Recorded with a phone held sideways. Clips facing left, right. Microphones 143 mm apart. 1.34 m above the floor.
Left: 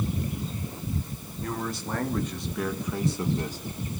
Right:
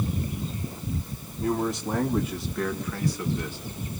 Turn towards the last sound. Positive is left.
turn(degrees=45)  # may be behind; listen again after turning